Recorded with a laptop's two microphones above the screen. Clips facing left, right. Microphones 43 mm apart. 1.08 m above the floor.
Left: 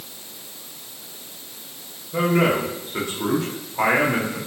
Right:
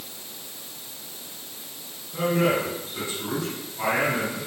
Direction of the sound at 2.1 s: 85° left.